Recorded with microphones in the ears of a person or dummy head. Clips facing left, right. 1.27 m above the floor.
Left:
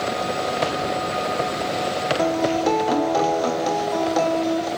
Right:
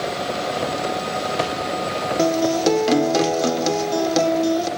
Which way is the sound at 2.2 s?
35° right (ahead or behind).